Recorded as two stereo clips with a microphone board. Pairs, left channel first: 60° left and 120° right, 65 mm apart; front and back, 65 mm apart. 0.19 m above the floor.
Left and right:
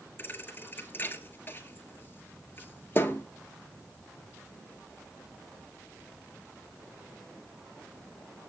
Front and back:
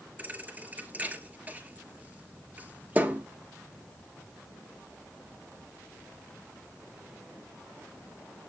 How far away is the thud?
About 1.5 m.